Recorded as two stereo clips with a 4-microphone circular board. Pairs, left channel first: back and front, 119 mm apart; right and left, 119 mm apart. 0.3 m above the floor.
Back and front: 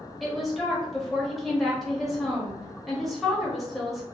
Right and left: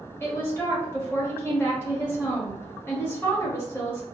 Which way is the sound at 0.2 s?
90° right.